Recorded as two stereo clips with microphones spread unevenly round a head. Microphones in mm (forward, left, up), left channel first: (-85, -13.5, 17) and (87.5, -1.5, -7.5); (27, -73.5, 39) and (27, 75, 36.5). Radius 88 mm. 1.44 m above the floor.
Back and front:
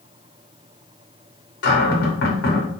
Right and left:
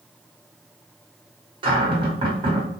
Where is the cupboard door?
150° left, 0.9 m.